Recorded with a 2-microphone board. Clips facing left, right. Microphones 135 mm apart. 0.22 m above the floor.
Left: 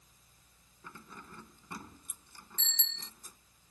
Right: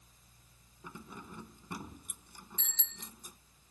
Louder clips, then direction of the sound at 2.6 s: Left 1 dB; 10° right (ahead or behind).